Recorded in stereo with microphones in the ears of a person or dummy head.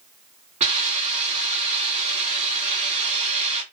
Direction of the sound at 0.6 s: 40° right (ahead or behind).